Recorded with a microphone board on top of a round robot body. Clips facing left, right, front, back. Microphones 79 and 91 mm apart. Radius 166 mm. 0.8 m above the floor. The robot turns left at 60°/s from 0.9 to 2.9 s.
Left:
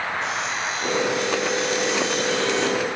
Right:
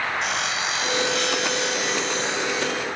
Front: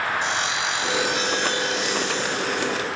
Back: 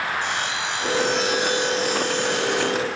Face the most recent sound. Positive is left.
turn(degrees=165)